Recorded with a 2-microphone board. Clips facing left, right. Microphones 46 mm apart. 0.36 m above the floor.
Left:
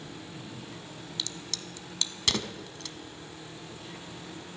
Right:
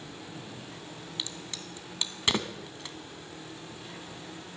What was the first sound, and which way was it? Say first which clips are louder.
A crack: left 1 dB; 20° right (ahead or behind).